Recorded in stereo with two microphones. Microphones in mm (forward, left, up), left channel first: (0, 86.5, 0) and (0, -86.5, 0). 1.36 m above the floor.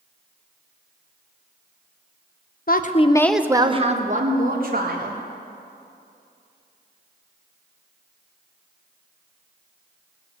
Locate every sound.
2.7 s a woman speaking: 60° left (ahead or behind), 0.8 m; by 5.2 s 60° right (ahead or behind), 2.5 m